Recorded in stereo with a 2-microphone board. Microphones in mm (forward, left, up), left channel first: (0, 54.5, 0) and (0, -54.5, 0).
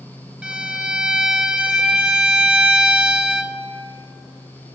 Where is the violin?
10° right (ahead or behind), 0.6 m.